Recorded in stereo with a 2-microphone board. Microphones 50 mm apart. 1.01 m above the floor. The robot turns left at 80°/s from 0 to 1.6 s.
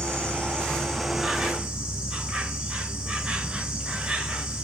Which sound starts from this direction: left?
An insect, at 0.0 s.